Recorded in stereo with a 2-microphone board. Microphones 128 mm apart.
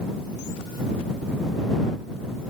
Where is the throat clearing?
I don't hear throat clearing.